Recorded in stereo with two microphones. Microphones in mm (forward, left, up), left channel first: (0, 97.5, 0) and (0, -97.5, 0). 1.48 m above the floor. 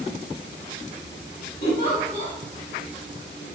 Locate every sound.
1.6 s a giggle: 30° left (ahead or behind), 1.8 m